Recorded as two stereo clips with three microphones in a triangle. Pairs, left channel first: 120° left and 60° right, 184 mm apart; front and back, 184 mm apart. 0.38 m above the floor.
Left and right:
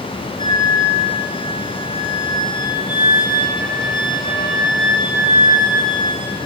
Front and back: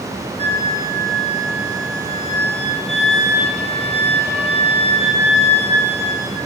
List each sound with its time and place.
0.4 s a flute: 55° left, 9.5 m